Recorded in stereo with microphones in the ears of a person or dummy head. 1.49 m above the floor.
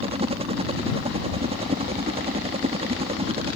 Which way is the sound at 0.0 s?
30° right (ahead or behind).